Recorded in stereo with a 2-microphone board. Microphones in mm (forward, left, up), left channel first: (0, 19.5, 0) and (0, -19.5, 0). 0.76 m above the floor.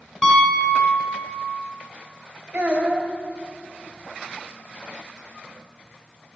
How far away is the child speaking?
About 1.8 m.